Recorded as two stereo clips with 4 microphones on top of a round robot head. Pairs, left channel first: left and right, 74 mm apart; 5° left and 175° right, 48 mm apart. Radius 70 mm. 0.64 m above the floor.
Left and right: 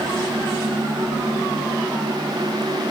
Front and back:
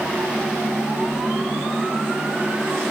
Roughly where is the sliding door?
No sliding door in this recording.